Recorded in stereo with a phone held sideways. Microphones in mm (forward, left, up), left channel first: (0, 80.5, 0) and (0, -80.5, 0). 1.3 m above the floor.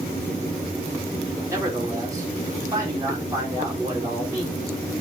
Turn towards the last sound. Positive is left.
turn(degrees=-20)  # may be behind; listen again after turning